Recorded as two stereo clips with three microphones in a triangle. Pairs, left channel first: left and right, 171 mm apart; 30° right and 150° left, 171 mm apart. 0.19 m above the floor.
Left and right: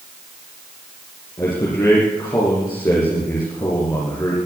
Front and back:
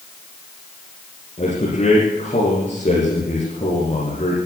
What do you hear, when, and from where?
1.4 s a man speaking: 20° left, 7 m